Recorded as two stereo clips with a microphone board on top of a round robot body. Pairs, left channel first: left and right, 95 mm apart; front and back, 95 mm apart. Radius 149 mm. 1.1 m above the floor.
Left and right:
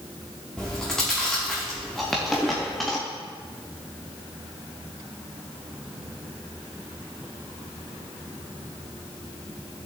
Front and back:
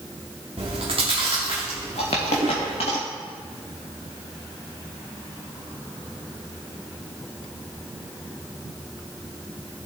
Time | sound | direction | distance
0.6 | chewing | 175° left | 0.7 m
2.0 | a dropped coin | straight ahead | 0.6 m